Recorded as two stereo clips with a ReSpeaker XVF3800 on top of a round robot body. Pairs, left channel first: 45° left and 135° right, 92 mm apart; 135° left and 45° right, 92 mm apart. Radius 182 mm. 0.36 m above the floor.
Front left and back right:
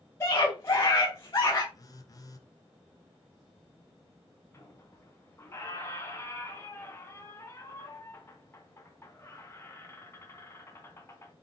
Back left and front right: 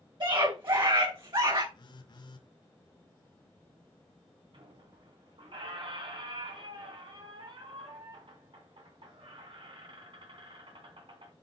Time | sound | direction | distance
0.2 | a scream | 15° right | 4 m
1.7 | a phone buzzing | 95° left | 1.6 m
4.5 | a squeak | 20° right | 3 m